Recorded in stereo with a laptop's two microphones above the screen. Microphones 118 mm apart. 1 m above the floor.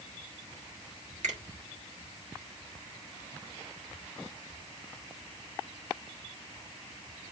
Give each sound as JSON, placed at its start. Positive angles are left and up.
{"t": 1.2, "sound": "a finger snap", "side_deg": -80, "distance_m": 1.4}